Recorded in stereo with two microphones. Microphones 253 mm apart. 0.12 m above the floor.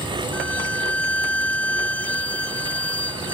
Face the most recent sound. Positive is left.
turn(degrees=75)  # may be behind; listen again after turning